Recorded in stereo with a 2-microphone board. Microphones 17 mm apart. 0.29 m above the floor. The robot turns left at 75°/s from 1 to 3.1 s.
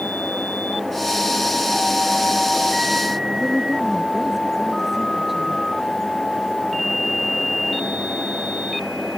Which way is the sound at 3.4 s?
10° right (ahead or behind).